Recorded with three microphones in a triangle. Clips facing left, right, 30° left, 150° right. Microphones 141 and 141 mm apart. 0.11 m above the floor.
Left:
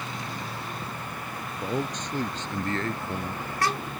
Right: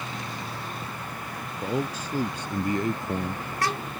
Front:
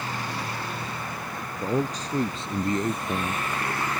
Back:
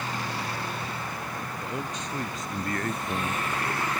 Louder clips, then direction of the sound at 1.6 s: Right 1 dB, front 11 dB; 5° right.